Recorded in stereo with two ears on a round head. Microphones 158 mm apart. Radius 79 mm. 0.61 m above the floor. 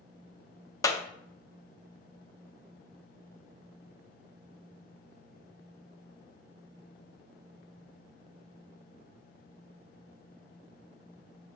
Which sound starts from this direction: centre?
A clap, at 0.8 s.